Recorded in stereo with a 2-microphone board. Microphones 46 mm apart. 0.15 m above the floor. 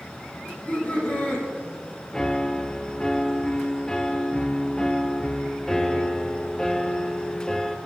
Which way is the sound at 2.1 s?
15° left (ahead or behind).